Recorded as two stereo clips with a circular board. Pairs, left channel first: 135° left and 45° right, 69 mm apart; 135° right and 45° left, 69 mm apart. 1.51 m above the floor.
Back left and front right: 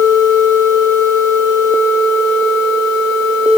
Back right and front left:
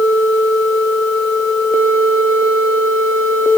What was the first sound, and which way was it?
Only background noise.